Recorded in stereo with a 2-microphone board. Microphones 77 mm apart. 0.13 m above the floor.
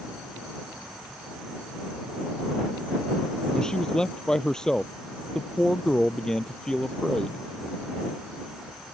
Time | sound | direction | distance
3.5 | a man speaking | 10° left (ahead or behind) | ?